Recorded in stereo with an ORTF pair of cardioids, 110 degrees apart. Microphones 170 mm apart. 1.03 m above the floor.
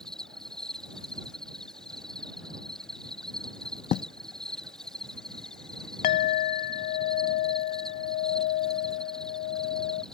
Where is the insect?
5° left.